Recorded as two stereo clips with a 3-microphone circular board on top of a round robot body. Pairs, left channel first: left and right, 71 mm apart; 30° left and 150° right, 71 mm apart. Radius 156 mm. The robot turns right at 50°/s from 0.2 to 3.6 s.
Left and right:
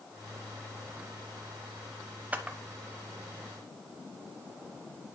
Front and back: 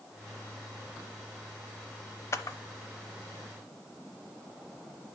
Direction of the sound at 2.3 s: 20° right.